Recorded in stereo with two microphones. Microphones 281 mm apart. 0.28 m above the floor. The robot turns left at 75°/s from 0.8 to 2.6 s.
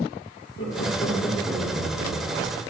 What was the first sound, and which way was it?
Laughter, 40° left (ahead or behind).